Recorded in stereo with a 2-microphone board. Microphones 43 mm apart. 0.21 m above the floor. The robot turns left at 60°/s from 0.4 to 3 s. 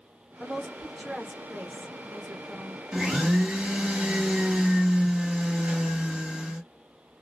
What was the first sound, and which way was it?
A woman speaking, 35° left.